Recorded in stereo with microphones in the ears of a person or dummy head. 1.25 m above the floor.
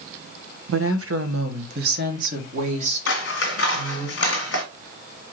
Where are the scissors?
65° left (ahead or behind), 1.1 m.